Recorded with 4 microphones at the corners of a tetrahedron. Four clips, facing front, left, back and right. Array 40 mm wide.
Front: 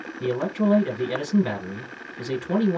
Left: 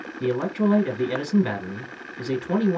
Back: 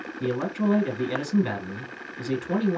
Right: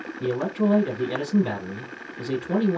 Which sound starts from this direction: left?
A man speaking, at 0.2 s.